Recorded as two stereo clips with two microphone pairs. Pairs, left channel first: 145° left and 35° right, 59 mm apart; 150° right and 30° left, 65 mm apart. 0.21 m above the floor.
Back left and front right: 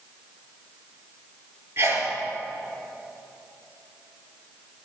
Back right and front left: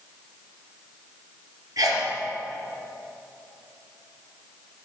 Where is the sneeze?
Straight ahead, 4 m.